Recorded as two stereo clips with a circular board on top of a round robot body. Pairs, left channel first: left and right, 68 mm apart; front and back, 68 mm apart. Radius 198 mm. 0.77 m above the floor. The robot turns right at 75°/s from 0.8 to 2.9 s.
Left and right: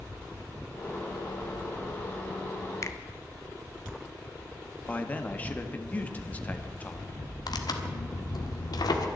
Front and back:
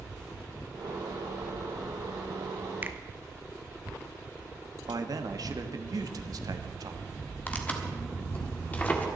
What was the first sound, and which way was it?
A finger snap, 120° left.